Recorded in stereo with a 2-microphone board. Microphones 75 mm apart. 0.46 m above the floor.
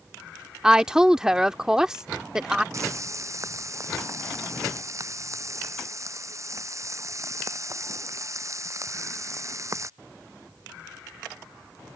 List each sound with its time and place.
0.6 s a woman speaking: 10° right (ahead or behind)
2.7 s frying: 40° right (ahead or behind)